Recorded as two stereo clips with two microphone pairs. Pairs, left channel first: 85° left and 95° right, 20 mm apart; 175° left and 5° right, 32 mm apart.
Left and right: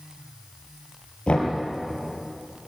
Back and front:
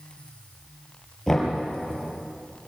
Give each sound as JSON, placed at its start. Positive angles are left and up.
{"t": 1.3, "sound": "knocking", "azimuth_deg": 90, "distance_m": 5.0}